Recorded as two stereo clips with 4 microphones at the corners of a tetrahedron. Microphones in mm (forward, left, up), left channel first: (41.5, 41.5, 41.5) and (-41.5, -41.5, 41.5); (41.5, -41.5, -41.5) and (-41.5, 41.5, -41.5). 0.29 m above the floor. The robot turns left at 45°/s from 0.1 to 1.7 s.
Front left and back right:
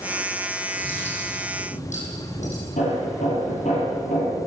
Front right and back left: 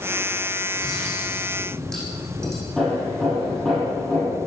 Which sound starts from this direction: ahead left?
Hammering, at 2.8 s.